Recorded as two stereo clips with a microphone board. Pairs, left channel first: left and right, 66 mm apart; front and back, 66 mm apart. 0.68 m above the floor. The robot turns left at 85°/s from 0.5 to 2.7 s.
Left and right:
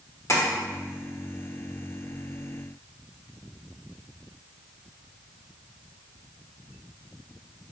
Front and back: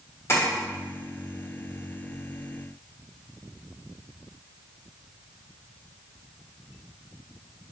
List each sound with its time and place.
0.3 s tapping: 45° left, 1.2 m